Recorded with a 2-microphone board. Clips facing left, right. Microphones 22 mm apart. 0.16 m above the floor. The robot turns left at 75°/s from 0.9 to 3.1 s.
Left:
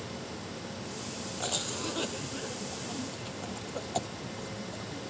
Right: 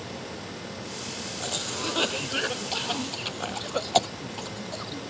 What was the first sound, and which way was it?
A cough, centre (ahead or behind).